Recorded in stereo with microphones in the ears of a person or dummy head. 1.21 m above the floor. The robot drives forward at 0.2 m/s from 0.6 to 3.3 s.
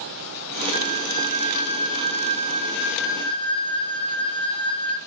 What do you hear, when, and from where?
0.7 s a flute: 60° right (ahead or behind), 1.4 m; by 5.0 s 70° right (ahead or behind), 1.3 m